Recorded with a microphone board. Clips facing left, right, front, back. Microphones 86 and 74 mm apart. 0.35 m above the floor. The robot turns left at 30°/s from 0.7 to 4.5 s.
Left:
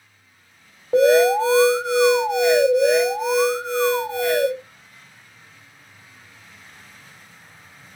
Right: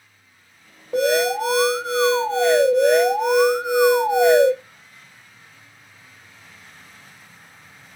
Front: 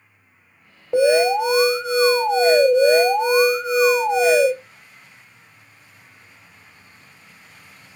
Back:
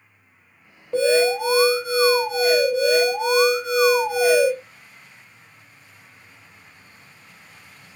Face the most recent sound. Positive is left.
turn(degrees=-45)